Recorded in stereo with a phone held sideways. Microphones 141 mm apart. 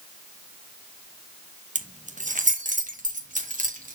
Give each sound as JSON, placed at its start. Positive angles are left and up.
{"t": 1.8, "sound": "keys jangling", "side_deg": -60, "distance_m": 1.0}